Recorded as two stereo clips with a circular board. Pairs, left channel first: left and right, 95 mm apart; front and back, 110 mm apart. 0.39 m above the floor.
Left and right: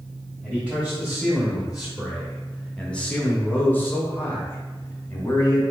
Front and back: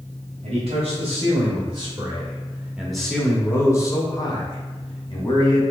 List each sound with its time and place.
0.4 s a man speaking: 165° right, 1.8 m; by 5.6 s 25° left, 2 m